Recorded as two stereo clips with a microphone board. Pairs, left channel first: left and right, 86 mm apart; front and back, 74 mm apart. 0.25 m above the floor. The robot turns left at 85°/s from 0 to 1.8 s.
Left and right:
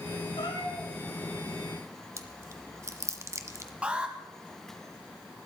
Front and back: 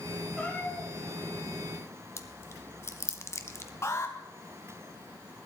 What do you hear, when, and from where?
0.4 s a cat meowing: 80° left, 5.5 m; by 0.9 s 30° left, 5.5 m
2.2 s chewing: 45° right, 1.2 m
3.8 s an alarm: 20° right, 2.5 m